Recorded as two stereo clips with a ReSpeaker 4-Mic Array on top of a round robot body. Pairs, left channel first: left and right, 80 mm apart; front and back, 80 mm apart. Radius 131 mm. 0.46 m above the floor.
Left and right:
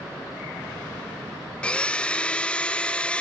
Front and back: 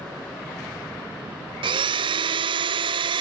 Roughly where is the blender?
Behind.